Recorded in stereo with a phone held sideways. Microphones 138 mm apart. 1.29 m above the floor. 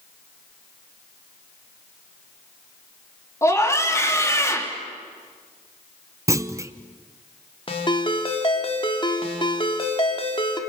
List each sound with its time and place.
3.4 s a scream: 20° left (ahead or behind), 3 m
6.3 s a clunk: 20° right (ahead or behind), 0.7 m
7.7 s a ringtone: 35° left (ahead or behind), 2.5 m